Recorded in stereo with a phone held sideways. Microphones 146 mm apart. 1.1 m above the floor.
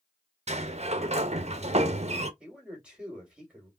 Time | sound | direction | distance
0.5 | a sliding door | 50° right (ahead or behind) | 0.6 m
2.4 | a man speaking | 10° right (ahead or behind) | 3 m